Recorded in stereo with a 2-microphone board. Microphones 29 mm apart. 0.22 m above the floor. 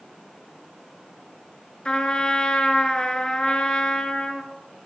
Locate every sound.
1.9 s a trumpet: 30° left (ahead or behind), 1.5 m